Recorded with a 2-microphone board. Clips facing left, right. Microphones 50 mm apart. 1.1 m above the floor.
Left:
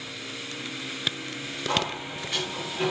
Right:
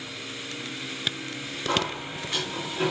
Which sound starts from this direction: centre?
A sliding door, at 1.7 s.